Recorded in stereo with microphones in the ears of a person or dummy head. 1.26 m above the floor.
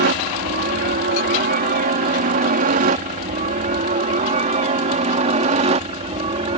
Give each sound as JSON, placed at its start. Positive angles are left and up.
{"t": 0.0, "sound": "a helicopter", "side_deg": -50}